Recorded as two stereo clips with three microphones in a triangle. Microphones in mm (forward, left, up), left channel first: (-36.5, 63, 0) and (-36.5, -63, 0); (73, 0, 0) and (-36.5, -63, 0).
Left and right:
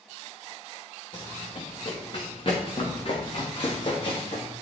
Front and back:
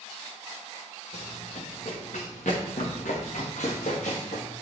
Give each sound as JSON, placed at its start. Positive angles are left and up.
{"t": 1.1, "sound": "running footsteps", "azimuth_deg": 40, "distance_m": 3.0}